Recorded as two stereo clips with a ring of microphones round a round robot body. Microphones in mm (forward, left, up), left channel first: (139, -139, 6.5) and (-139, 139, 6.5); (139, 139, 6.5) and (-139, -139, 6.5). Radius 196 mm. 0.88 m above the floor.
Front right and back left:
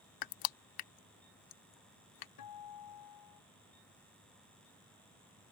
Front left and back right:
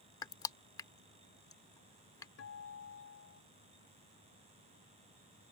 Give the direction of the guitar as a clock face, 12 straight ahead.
12 o'clock.